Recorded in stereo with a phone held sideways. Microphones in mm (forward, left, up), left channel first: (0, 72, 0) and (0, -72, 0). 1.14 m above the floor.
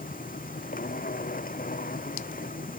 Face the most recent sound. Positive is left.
turn(degrees=80)